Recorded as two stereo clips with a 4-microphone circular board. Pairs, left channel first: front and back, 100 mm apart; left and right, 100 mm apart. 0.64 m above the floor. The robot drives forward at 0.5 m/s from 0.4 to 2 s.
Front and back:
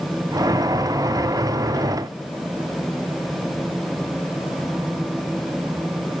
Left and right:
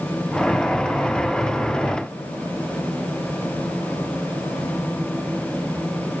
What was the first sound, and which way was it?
Only background noise.